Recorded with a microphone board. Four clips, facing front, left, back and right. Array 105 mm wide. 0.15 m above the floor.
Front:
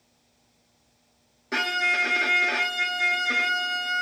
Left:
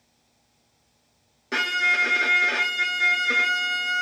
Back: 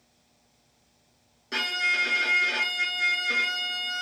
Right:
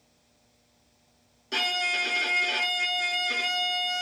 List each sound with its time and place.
1.5 s a violin: 65° left, 1.0 m